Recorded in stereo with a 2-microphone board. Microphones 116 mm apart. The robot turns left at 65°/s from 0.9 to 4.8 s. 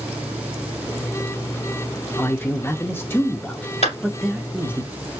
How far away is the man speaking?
About 0.7 m.